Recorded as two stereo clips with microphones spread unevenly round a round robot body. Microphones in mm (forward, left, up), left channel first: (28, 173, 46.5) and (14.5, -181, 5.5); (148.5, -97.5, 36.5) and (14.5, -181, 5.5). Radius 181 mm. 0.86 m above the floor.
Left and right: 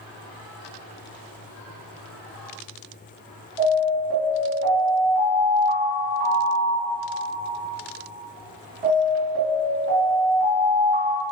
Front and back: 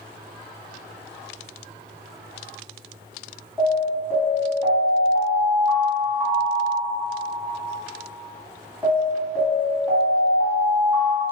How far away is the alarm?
About 1.7 m.